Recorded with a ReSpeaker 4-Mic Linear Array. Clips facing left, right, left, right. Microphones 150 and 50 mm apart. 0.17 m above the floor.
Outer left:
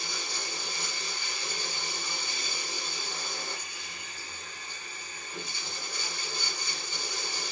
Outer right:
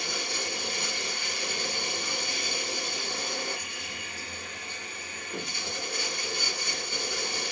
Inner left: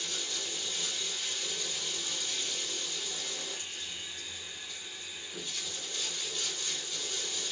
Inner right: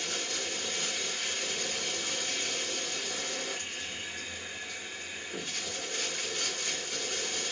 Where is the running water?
65° right (ahead or behind), 1.5 m.